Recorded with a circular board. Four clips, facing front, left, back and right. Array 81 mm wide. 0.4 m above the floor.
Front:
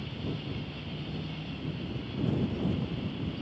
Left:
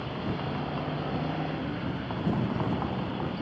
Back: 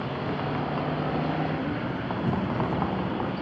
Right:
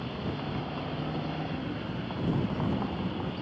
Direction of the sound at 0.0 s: 170° left.